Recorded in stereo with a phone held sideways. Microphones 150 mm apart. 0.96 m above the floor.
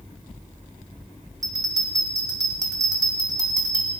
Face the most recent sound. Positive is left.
turn(degrees=-25)  # may be behind; listen again after turning